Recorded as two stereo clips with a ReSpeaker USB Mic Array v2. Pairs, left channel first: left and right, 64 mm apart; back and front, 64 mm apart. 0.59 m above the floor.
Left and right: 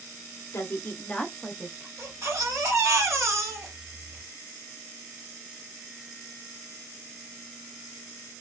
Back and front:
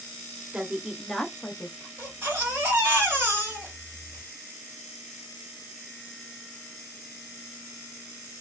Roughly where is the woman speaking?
Left.